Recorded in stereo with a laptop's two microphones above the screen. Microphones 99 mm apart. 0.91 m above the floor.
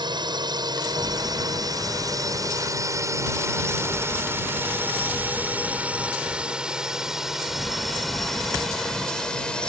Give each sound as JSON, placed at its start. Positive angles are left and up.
{"t": 0.0, "sound": "a drone", "side_deg": -50}